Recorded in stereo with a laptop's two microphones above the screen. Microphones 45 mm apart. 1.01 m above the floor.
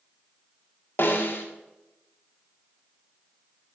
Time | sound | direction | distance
1.0 | a snare drum | 50° left (ahead or behind) | 1.6 m